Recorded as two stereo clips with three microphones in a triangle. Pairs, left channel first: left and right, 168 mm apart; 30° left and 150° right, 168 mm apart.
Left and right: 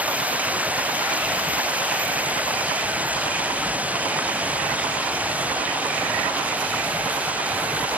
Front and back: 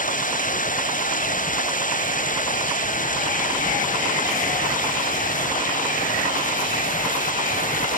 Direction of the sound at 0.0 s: 10° right.